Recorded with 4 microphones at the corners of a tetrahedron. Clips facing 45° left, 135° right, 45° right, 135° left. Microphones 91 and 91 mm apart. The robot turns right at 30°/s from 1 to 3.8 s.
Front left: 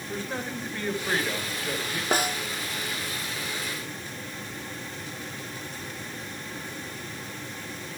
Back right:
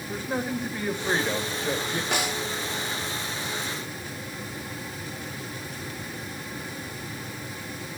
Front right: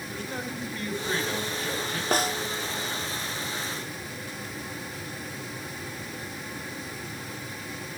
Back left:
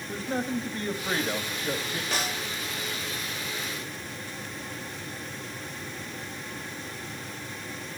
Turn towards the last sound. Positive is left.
turn(degrees=50)